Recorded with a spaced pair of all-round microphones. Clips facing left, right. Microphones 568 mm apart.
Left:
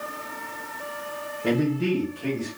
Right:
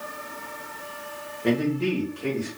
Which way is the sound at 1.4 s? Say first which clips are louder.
Even; 30° left (ahead or behind).